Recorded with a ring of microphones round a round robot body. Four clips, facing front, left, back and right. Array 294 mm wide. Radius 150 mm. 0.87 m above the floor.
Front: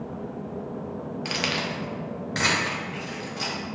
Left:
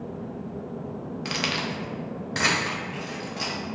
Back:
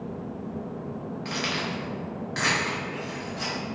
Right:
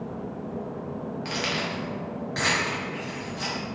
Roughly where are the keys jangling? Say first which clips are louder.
Left 1 dB, front 1 dB; ahead left.